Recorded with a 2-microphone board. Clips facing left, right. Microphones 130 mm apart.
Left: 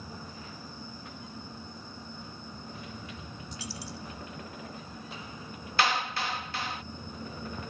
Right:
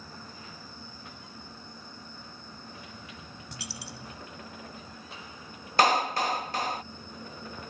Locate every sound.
3.5 s a dropped coin: 85° right
5.8 s a clap: 40° right (ahead or behind)